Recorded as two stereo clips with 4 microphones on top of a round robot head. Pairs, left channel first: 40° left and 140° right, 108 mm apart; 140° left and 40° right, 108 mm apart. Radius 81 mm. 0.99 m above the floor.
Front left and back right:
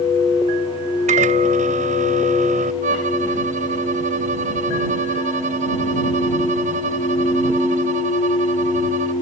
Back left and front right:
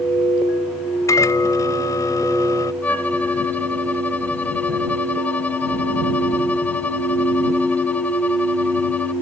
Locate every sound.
1.1 s a microwave: 155° right
2.8 s a violin: 140° right